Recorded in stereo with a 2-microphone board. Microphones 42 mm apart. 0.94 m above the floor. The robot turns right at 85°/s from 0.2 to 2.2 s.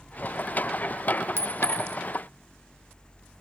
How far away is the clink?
About 0.7 m.